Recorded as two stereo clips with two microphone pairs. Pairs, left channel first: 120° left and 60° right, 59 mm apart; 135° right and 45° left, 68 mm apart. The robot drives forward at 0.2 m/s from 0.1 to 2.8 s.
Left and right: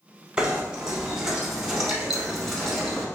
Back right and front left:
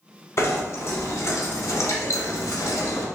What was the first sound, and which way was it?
Knocking, 130° right.